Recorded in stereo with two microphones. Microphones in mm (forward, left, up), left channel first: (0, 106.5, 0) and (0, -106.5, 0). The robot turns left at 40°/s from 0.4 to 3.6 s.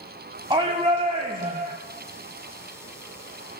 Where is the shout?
40° right, 1.2 m; by 1.7 s 85° right, 1.2 m.